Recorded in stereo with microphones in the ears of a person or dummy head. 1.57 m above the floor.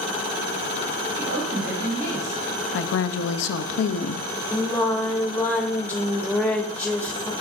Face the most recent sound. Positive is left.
turn(degrees=10)  # may be behind; listen again after turning